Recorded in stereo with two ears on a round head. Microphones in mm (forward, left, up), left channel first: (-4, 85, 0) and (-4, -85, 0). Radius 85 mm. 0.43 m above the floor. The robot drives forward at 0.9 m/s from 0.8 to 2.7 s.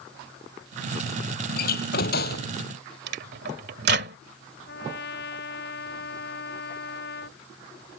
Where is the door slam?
50° left (ahead or behind); by 2.5 s 55° left (ahead or behind).